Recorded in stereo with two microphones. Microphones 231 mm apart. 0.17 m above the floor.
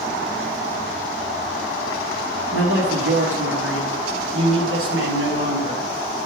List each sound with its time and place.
2.5 s a man speaking: 55° right (ahead or behind), 2.5 m; by 5.9 s 70° right (ahead or behind), 3.5 m